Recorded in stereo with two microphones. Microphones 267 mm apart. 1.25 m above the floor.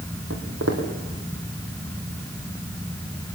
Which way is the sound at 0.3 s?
65° right (ahead or behind).